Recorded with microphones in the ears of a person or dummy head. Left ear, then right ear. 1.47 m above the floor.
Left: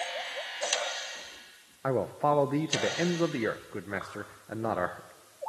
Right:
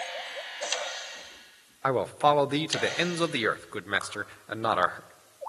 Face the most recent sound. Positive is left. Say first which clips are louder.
# right 3 dB
turn(degrees=-75)  # may be behind; listen again after turning